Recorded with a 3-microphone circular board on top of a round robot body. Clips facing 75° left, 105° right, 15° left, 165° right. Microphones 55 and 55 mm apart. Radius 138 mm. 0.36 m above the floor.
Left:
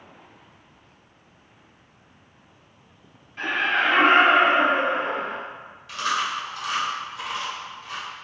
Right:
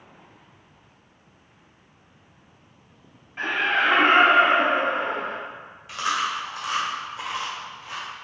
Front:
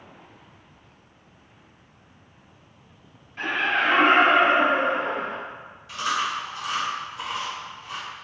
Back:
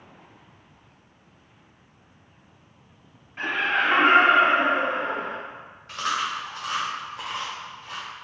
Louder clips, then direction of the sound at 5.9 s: Even, front 1 dB; 165° right.